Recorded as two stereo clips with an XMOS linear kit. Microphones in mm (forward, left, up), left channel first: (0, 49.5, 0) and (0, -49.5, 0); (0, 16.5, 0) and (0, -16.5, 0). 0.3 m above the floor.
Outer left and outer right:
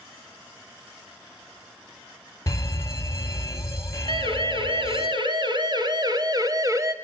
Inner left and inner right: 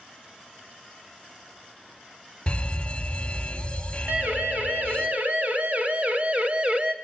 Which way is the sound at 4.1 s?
60° right (ahead or behind).